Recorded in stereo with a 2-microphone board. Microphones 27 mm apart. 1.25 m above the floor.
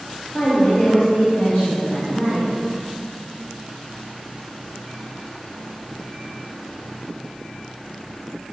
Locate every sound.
0.3 s a woman speaking: 75° left (ahead or behind), 3 m; by 2.5 s 65° left (ahead or behind), 5 m